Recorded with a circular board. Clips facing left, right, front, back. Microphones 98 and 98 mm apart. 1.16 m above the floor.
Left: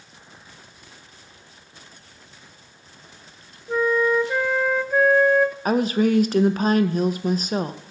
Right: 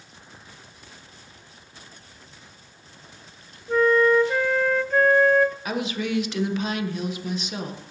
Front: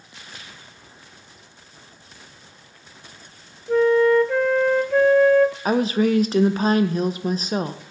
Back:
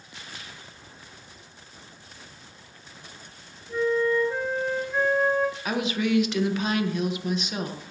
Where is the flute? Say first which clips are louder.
Right 2 dB, front 8 dB; 10° left, 0.5 m.